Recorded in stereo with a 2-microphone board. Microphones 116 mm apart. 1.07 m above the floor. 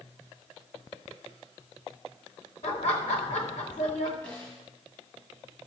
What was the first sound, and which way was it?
Laughter, 80° left.